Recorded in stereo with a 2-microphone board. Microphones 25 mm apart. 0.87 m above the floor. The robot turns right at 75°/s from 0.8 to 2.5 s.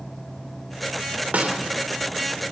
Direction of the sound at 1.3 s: 80° right.